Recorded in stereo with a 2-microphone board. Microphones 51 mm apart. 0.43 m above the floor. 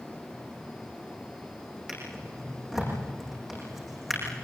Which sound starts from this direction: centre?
A drawer, at 1.9 s.